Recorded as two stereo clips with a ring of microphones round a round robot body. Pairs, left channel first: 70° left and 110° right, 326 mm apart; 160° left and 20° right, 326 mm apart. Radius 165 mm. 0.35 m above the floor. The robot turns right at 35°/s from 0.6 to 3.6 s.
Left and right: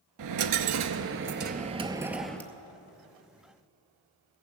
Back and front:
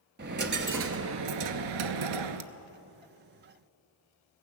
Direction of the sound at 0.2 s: 80° right.